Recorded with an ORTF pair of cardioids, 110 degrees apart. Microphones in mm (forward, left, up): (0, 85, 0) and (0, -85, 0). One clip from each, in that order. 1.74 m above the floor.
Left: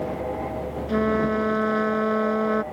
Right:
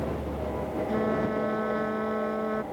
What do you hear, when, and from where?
0.9 s a trumpet: 40° left